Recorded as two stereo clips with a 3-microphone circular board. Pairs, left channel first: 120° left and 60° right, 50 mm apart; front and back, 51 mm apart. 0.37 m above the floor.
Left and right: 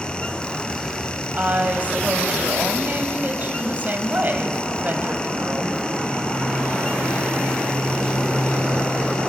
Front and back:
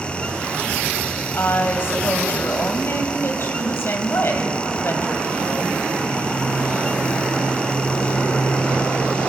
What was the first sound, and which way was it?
A woman speaking, 20° right.